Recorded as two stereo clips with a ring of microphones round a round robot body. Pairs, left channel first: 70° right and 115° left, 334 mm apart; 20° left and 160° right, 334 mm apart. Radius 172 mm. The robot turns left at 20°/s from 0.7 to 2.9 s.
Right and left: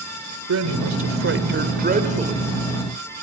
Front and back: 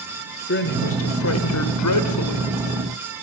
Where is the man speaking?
75° left, 2.5 m; by 2.5 s 40° left, 2.5 m.